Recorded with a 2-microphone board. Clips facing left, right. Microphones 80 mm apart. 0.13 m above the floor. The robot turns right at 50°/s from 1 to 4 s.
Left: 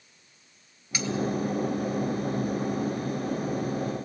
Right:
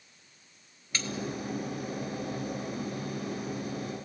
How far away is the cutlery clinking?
About 1.4 m.